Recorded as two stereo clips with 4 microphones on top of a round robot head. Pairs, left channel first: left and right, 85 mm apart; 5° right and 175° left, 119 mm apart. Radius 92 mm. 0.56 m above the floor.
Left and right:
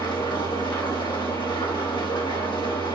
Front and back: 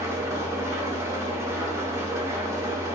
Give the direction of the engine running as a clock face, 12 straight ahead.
8 o'clock.